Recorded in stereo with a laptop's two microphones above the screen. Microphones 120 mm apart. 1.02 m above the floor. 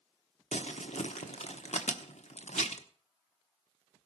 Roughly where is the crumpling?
Left.